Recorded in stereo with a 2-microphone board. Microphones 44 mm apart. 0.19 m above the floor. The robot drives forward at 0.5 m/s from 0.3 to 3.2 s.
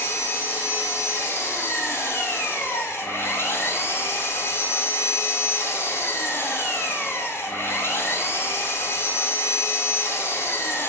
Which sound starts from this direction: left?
An engine running, at 0.0 s.